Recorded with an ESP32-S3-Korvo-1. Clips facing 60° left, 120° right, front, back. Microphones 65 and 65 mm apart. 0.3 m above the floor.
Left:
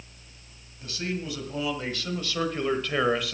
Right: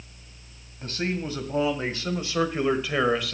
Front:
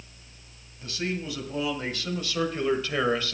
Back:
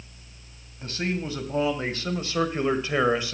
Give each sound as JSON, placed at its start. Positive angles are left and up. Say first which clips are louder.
{"t": 0.8, "sound": "a man speaking", "louder": "right 3 dB, back 2 dB", "azimuth_deg": -140, "distance_m": 1.9}